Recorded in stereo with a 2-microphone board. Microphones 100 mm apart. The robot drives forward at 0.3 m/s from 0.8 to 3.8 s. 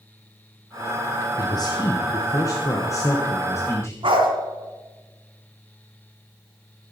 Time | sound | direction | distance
1.4 | a man speaking | 45° left (ahead or behind) | 1.0 m
4.0 | a dog barking | 65° right (ahead or behind) | 2.5 m